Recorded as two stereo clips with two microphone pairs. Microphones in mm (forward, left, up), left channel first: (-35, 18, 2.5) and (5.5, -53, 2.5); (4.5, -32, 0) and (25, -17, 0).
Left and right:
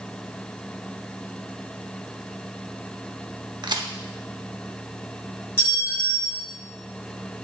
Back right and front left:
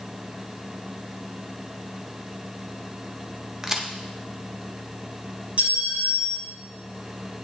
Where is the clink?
60° left, 3 m.